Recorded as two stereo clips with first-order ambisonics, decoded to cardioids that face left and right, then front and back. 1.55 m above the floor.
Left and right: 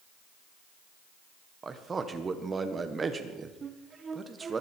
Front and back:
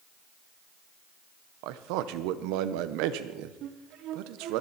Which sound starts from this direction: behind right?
A flute, at 3.6 s.